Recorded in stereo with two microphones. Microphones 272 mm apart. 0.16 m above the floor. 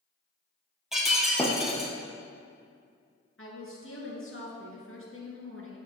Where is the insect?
I don't hear an insect.